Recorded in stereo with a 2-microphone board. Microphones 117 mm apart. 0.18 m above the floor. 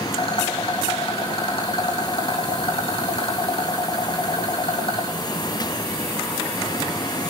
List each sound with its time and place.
0.1 s a rattle: 55° left (ahead or behind), 3.5 m